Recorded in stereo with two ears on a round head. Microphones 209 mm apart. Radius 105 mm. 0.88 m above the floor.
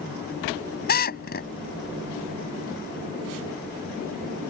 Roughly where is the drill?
Left.